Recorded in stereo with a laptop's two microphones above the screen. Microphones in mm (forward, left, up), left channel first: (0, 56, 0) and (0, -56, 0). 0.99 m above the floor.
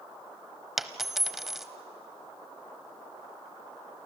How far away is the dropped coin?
About 0.9 m.